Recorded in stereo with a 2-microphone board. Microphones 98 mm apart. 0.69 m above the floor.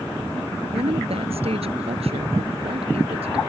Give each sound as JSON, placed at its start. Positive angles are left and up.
{"t": 0.7, "sound": "a woman speaking", "side_deg": -85}